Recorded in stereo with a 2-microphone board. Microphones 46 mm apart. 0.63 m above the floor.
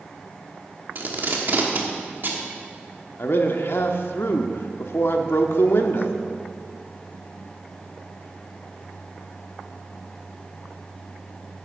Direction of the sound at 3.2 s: 60° left (ahead or behind).